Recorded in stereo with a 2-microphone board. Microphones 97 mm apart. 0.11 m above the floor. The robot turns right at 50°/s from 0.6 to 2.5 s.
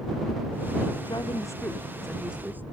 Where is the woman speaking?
125° left; by 2.6 s 160° right.